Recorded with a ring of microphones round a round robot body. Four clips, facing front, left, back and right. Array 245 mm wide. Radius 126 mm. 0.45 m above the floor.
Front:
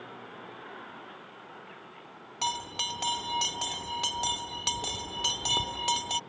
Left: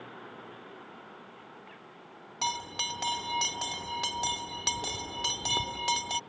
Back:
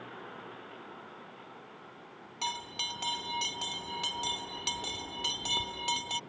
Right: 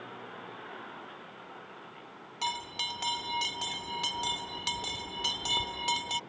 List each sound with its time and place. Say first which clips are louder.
2.4 s a bell: left 2 dB, front 5 dB; 50° left